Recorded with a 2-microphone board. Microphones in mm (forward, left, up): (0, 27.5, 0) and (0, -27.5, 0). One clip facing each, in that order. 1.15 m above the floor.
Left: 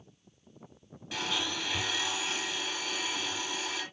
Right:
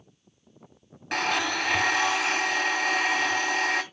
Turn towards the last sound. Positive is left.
turn(degrees=-65)  # may be behind; listen again after turning